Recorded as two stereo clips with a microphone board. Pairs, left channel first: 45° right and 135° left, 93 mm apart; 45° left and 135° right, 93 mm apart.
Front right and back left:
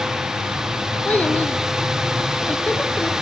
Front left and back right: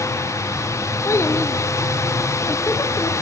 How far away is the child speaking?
About 0.7 m.